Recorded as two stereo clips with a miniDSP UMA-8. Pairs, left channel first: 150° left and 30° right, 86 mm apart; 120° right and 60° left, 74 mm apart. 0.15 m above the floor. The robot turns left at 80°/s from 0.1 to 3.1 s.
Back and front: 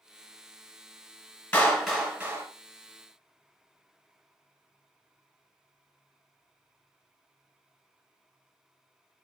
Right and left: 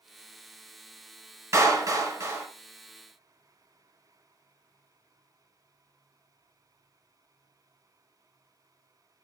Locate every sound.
1.5 s a clap: 85° left, 1.2 m; by 2.5 s 10° left, 1.2 m